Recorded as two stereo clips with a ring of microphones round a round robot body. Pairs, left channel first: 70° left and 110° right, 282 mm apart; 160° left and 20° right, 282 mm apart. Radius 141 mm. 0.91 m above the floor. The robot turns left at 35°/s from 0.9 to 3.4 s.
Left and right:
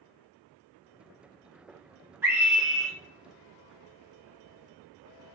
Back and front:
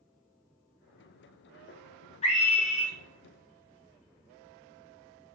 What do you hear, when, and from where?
2.2 s a scream: 175° left, 0.6 m; by 2.9 s 150° left, 0.6 m